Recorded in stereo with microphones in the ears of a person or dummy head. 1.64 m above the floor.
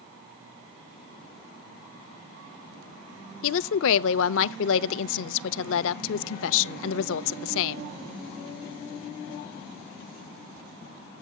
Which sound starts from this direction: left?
A woman speaking, at 3.4 s.